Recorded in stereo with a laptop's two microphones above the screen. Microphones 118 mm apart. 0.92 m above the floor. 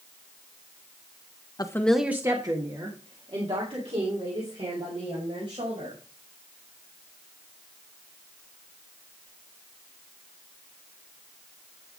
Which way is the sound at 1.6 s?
35° left (ahead or behind).